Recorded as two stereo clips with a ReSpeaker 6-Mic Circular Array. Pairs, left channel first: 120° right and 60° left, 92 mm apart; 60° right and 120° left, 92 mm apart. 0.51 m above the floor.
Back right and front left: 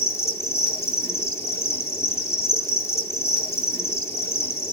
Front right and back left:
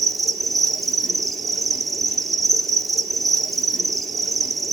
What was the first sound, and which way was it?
An insect, 150° right.